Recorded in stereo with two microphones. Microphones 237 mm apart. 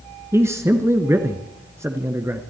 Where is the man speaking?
10° right (ahead or behind), 1.5 m.